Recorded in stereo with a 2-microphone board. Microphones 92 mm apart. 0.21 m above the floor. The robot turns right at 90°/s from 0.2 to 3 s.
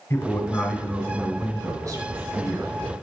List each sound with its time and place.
0.1 s a man speaking: 140° left, 1.3 m; by 2.9 s 25° left, 1.3 m